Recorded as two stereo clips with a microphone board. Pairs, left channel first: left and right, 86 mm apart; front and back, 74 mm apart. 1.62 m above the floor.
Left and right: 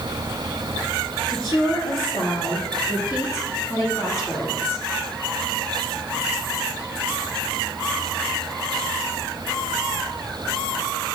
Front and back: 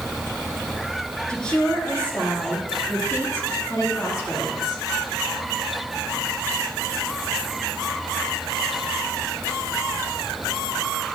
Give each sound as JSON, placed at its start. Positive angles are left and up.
{"t": 1.3, "sound": "a woman speaking", "azimuth_deg": 75, "distance_m": 4.0}